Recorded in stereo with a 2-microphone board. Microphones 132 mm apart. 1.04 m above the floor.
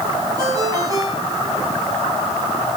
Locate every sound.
0.4 s a ringtone: 30° right (ahead or behind), 7 m